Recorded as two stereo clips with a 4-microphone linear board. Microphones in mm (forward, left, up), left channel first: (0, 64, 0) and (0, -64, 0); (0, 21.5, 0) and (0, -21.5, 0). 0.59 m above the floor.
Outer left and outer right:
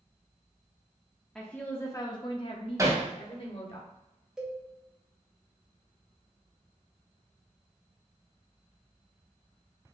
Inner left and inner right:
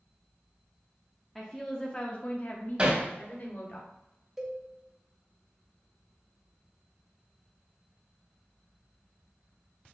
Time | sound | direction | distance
1.4 | a woman speaking | 5° left (ahead or behind) | 0.7 m
2.8 | hammering | 25° right (ahead or behind) | 1.0 m
4.4 | a cowbell | 5° right (ahead or behind) | 1.0 m